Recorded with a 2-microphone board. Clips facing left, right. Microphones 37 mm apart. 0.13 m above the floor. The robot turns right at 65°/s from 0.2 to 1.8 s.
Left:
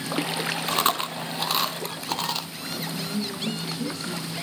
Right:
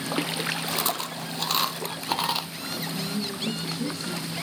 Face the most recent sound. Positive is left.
turn(degrees=5)  # may be behind; listen again after turning